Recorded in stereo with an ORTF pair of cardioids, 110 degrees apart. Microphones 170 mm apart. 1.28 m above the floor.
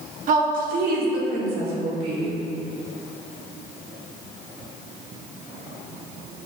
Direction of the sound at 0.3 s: 55° right.